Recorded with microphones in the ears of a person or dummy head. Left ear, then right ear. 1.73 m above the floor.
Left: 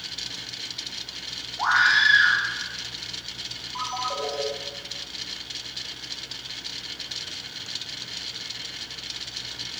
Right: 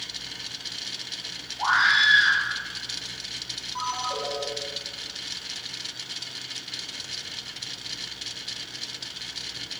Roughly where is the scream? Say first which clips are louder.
Left 1 dB; left.